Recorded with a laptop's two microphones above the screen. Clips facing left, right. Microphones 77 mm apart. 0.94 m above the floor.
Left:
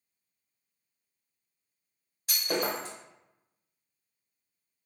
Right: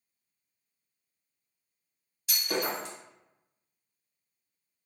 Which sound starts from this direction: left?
Breaking glass, at 2.3 s.